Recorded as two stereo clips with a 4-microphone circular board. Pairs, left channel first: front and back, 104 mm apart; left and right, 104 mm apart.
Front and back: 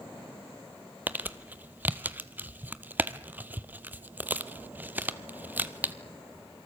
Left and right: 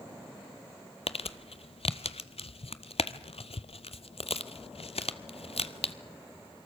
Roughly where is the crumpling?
Left.